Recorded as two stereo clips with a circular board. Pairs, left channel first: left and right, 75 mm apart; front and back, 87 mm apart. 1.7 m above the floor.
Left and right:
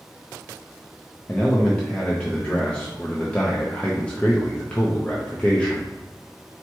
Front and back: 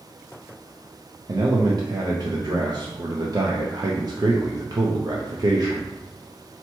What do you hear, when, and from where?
1.3 s a man speaking: 160° left, 0.6 m